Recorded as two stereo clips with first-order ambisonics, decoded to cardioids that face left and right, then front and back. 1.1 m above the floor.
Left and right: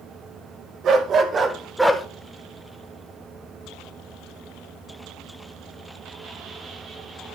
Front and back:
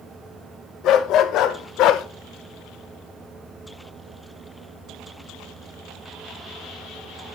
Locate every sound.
0.8 s a dog barking: 40° right, 1.5 m; by 2.0 s 10° left, 0.9 m